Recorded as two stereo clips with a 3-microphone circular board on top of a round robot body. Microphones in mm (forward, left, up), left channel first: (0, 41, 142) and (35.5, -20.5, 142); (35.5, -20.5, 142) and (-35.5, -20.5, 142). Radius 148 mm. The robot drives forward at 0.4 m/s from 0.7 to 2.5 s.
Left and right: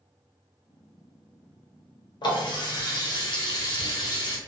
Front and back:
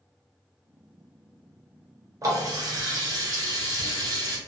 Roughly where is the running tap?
Behind left.